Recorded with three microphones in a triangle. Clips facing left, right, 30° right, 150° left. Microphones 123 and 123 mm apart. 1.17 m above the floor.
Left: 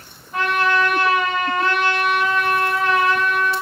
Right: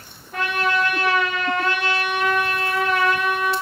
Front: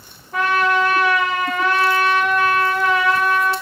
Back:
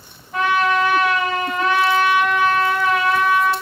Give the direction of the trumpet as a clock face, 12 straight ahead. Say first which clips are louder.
Left 3 dB, even; 2 o'clock.